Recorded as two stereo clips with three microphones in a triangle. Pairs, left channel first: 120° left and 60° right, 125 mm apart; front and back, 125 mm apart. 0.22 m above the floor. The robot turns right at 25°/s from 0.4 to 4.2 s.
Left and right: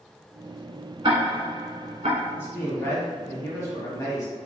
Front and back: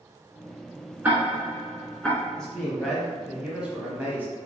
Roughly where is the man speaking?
Left.